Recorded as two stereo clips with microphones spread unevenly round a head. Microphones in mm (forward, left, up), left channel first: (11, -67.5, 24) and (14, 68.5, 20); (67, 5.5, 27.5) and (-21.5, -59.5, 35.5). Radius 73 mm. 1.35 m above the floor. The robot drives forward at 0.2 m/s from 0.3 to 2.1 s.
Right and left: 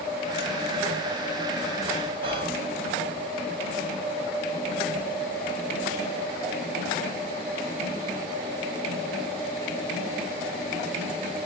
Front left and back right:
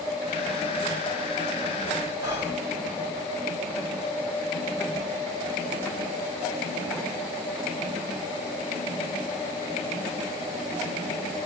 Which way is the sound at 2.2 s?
145° left.